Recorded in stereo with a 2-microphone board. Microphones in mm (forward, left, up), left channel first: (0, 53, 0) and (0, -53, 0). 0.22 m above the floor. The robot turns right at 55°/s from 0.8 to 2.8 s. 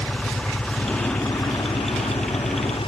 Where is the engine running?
10° left; by 2.9 s 120° left.